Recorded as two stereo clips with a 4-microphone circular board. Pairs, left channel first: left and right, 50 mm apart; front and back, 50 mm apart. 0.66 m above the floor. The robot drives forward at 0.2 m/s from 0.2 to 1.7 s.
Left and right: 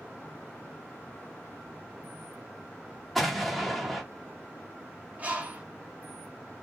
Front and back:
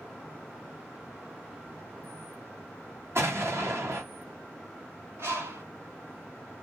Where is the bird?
150° right, 1.5 m.